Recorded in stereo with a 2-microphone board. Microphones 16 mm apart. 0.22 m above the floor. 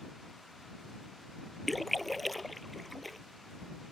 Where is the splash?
5° left (ahead or behind).